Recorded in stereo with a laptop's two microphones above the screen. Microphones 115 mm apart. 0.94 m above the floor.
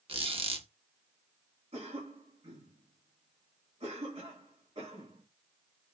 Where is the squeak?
50° right (ahead or behind), 0.8 m.